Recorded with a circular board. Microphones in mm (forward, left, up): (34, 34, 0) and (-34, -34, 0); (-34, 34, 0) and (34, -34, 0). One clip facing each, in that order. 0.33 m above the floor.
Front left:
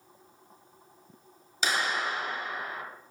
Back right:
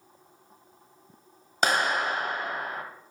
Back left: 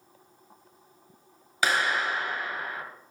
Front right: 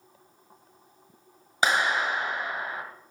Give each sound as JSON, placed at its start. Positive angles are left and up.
{"t": 1.6, "sound": "a clap", "azimuth_deg": -110, "distance_m": 1.3}